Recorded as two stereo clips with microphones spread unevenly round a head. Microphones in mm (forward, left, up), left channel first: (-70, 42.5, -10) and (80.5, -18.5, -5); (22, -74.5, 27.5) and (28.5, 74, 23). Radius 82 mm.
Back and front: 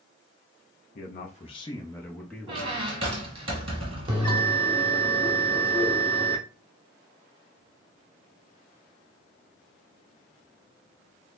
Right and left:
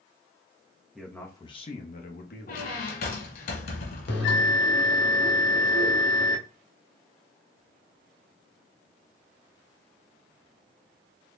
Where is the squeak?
75° right, 1.5 m.